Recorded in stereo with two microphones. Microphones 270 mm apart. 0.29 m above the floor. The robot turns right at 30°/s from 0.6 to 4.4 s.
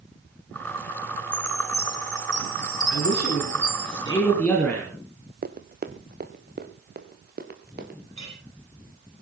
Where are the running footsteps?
35° right (ahead or behind), 1.0 m.